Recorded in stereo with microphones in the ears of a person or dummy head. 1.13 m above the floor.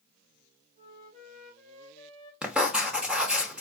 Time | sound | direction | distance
0.8 | a flute | 55° right (ahead or behind) | 3.5 m
2.4 | writing | 5° right (ahead or behind) | 0.8 m